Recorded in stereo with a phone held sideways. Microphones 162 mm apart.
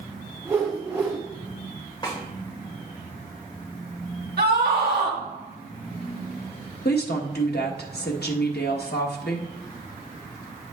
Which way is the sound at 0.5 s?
15° right (ahead or behind).